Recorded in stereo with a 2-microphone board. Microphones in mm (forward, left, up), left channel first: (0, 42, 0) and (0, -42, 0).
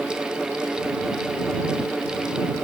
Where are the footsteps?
I don't hear footsteps.